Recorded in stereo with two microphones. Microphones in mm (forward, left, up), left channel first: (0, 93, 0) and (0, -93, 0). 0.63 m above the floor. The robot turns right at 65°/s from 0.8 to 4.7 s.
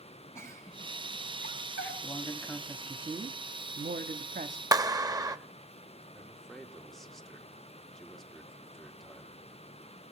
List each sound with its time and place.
0.3 s a giggle: 15° left (ahead or behind), 7 m; by 1.9 s 85° left, 7 m
2.0 s a man speaking: 140° left, 0.9 m; by 4.6 s 50° right, 0.9 m
4.7 s a clap: 20° right (ahead or behind), 0.8 m
6.1 s a man speaking: centre (ahead or behind), 1.6 m